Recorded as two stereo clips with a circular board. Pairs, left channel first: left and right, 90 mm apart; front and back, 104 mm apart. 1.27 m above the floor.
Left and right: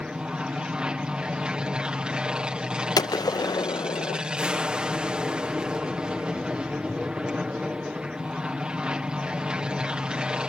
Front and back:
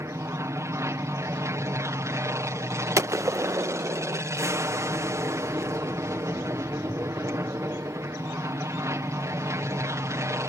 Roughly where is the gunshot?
Behind left.